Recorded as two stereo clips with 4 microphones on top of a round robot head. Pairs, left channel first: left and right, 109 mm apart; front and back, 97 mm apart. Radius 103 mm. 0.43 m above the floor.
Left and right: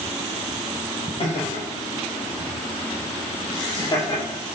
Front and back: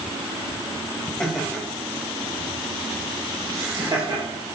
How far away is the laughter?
About 2.5 m.